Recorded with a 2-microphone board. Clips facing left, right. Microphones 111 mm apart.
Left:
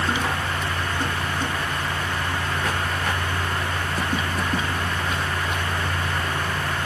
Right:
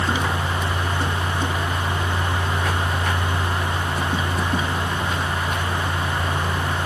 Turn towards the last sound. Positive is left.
No sound to turn to.